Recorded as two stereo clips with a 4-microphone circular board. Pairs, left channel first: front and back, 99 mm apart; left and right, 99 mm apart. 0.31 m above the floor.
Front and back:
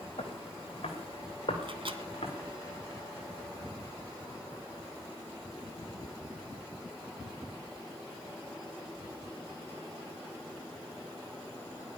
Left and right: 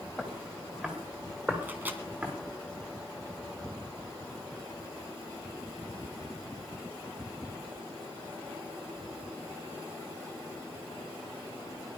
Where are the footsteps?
5° right, 4.5 m; by 2.3 s 20° right, 6 m.